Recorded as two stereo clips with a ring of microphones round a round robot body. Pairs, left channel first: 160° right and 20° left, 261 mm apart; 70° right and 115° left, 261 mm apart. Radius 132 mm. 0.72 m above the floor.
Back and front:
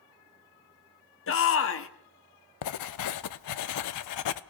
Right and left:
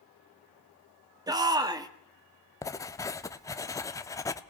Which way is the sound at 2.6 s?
145° right.